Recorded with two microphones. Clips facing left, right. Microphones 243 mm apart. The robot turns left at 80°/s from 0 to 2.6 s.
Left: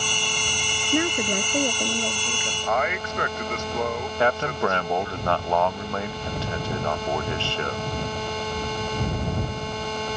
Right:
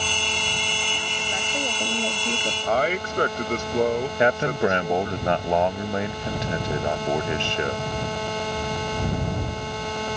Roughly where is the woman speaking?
Left.